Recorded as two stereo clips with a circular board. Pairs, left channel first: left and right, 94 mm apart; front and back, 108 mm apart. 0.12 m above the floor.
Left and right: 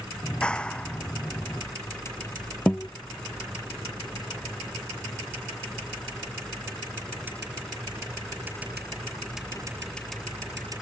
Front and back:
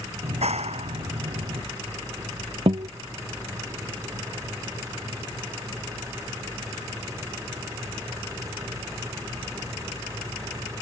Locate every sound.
0.2 s a clap: 170° left
2.7 s a guitar: 170° left